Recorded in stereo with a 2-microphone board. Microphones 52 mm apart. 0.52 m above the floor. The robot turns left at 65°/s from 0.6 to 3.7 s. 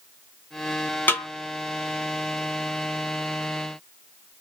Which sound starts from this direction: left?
A snare drum, at 1.1 s.